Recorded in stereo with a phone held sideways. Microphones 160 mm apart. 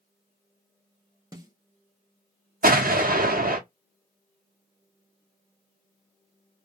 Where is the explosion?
65° right (ahead or behind), 0.6 m.